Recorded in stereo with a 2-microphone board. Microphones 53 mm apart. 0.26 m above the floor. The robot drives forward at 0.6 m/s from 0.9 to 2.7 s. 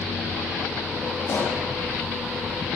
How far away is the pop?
About 8 m.